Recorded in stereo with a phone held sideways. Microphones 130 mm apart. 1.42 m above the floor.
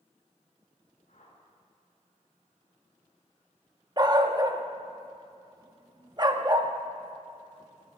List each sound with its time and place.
1.1 s a whoosh: 80° left, 4.5 m
4.0 s a dog barking: 30° right (ahead or behind), 0.9 m